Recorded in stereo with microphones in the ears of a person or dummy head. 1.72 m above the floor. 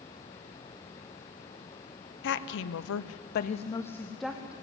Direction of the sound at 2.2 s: 70° left (ahead or behind).